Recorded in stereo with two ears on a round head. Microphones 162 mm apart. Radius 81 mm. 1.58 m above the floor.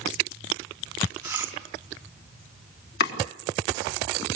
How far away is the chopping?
About 3.5 m.